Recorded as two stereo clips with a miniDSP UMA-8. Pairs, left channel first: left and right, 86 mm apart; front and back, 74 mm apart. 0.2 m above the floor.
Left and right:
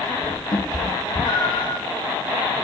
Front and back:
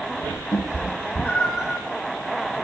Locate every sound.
0.5 s a cat meowing: 50° left, 2.0 m; by 1.8 s 100° left, 1.0 m